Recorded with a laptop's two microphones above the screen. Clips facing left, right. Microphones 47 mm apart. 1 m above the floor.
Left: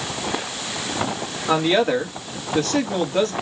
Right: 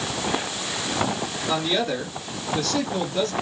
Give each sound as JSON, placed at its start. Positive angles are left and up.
{"t": 1.5, "sound": "a woman speaking", "side_deg": 45, "distance_m": 1.7}